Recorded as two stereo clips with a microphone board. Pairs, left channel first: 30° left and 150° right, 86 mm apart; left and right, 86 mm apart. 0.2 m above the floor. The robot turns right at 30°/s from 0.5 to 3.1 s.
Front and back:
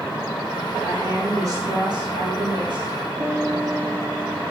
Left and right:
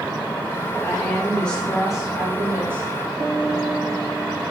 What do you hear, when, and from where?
0.8 s a woman speaking: 145° left, 2.5 m; by 2.9 s 155° right, 2.5 m
3.2 s a piano: 165° left, 5.5 m